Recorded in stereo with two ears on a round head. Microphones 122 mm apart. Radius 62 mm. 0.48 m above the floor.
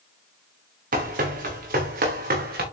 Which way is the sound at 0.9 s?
70° right (ahead or behind).